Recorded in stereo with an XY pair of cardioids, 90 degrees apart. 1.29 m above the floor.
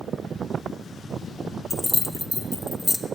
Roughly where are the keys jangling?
Ahead.